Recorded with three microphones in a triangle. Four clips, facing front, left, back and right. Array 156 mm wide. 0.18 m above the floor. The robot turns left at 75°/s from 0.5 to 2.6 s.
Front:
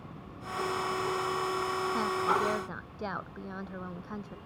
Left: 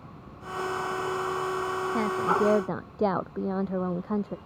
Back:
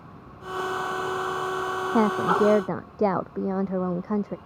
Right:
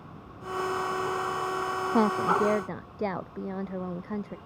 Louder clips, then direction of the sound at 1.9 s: Right 2 dB, back 9 dB; 150° right.